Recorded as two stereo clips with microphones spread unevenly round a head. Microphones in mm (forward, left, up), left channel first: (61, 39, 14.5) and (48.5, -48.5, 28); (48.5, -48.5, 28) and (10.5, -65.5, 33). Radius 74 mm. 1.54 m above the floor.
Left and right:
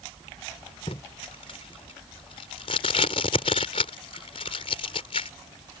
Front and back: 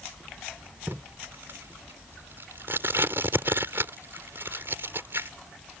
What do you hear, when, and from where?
0.9 s tape being pulled: 135° left